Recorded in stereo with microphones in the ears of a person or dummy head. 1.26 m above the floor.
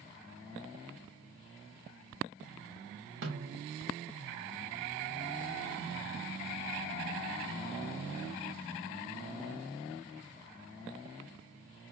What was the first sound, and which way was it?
A snare drum, 55° right (ahead or behind).